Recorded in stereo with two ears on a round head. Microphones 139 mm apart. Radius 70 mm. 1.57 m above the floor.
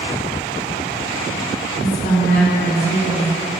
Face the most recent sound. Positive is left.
turn(degrees=60)  # may be behind; listen again after turning